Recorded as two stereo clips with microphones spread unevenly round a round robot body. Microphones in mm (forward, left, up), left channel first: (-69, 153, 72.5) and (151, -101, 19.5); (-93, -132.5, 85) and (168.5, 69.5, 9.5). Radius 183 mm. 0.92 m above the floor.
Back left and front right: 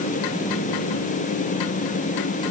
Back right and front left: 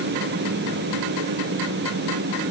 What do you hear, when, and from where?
Only background noise.